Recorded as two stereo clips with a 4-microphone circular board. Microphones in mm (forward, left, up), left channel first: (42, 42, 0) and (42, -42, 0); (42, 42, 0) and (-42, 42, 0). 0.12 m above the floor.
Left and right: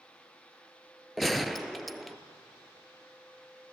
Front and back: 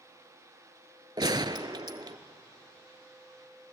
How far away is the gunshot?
About 0.8 m.